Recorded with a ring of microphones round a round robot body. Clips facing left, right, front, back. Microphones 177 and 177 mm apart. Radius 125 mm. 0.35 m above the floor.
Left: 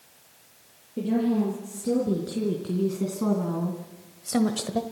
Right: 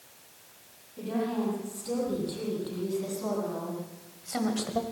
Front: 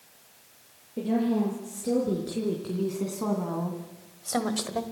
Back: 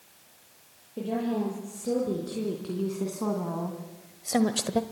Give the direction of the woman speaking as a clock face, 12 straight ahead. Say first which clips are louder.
Left 7 dB, front 4 dB; 9 o'clock.